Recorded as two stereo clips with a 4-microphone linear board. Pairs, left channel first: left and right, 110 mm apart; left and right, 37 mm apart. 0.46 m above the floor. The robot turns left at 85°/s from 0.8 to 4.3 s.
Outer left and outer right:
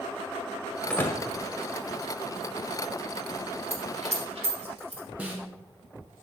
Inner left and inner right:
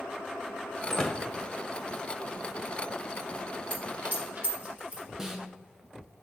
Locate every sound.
0.9 s a door slam: 10° left (ahead or behind), 1.5 m; by 1.2 s 35° left (ahead or behind), 1.5 m
3.7 s a dropped coin: 70° right (ahead or behind), 4 m; by 5.0 s 55° right (ahead or behind), 4 m
5.2 s a snare drum: 15° right (ahead or behind), 1.8 m